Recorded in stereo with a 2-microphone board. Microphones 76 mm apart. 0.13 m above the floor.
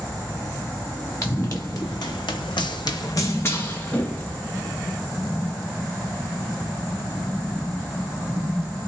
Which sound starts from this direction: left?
Running footsteps, at 1.2 s.